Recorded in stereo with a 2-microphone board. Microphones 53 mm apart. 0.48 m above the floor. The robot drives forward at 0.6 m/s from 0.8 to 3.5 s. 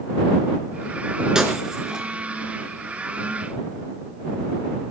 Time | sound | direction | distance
1.4 | breaking glass | 15° right (ahead or behind) | 3 m